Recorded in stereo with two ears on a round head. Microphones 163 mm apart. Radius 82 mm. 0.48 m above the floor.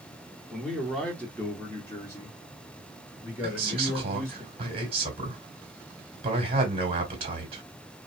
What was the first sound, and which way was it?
A man speaking, centre (ahead or behind).